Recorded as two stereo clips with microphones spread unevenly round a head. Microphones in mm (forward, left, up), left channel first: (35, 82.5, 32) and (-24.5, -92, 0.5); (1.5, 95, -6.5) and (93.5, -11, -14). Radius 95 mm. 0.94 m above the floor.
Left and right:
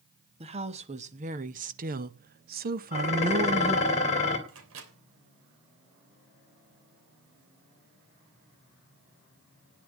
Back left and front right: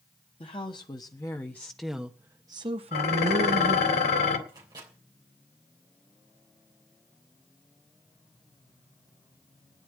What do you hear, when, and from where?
0.4 s a woman speaking: 165° right, 1.4 m; by 3.9 s 60° right, 1.0 m
2.9 s dishes clattering: 130° left, 3 m
4.5 s a microwave: 120° right, 3 m